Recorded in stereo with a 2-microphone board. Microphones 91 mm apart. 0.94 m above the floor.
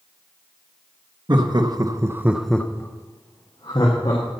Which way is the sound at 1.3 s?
55° right (ahead or behind).